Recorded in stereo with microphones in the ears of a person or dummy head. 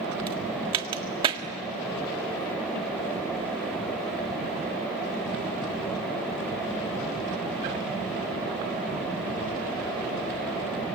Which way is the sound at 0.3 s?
30° right (ahead or behind).